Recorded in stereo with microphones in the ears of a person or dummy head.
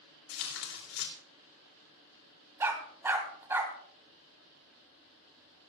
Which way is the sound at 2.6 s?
15° right (ahead or behind).